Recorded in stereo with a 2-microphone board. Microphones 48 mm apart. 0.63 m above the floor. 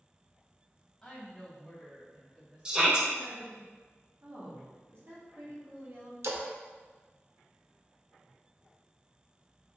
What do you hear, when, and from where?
1.0 s a woman speaking: 15° left (ahead or behind), 1.4 m; by 3.6 s 40° right (ahead or behind), 1.5 m
2.6 s a shout: 20° right (ahead or behind), 0.8 m
4.2 s a woman speaking: 55° right (ahead or behind), 1.1 m
6.2 s a splash: 75° right (ahead or behind), 0.6 m